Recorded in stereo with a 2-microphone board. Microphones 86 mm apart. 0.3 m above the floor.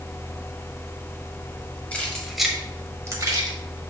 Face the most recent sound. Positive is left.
turn(degrees=-55)  # may be behind; listen again after turning